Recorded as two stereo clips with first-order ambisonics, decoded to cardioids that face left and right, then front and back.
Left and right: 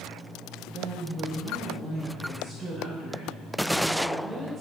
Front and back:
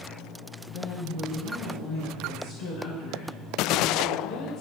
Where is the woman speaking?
10° right, 8 m; by 4.6 s straight ahead, 10 m.